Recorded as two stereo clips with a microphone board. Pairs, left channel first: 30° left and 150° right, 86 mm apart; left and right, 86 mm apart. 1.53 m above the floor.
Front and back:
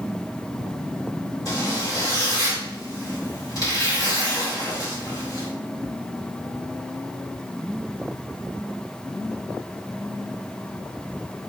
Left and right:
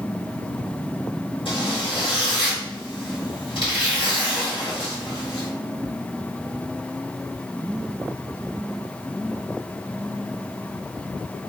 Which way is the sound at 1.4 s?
80° left.